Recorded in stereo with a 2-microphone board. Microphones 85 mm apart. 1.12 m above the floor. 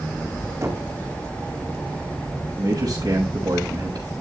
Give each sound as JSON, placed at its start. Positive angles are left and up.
{"t": 0.6, "sound": "knocking", "side_deg": -40, "distance_m": 2.0}
{"t": 2.6, "sound": "a man speaking", "side_deg": -50, "distance_m": 5.0}